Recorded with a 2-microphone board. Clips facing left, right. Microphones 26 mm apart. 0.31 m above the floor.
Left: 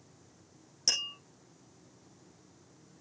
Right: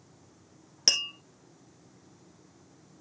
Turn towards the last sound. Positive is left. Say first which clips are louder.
# right 5 dB
turn(degrees=-45)  # may be behind; listen again after turning